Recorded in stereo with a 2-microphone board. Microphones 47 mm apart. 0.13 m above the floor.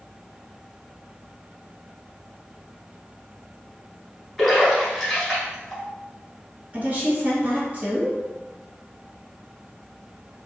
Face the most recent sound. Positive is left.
turn(degrees=-35)  # may be behind; listen again after turning